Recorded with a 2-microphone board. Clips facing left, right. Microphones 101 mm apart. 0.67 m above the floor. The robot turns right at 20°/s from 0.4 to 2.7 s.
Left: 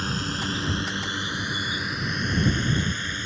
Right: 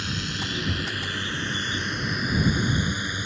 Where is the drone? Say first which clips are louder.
Left 3 dB; 40° left (ahead or behind); by 3.3 s 15° right (ahead or behind).